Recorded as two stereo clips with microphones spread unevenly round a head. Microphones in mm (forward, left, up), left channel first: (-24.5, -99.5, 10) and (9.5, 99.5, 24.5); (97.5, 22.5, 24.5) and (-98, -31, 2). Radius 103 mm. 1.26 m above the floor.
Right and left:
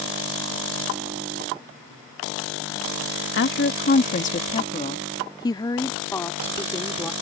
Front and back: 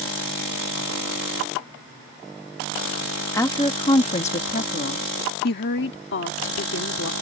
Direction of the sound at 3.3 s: 60° right.